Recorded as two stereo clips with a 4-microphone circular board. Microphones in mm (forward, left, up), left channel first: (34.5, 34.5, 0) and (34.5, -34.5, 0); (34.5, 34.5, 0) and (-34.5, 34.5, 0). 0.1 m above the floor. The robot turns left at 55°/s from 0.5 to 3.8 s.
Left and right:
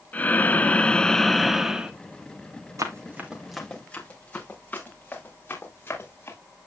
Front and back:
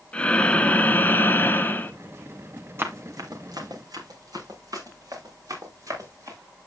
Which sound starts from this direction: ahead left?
Breathing, at 0.1 s.